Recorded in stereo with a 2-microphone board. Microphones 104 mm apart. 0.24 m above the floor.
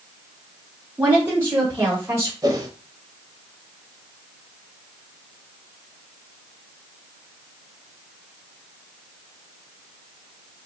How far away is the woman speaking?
About 1.5 m.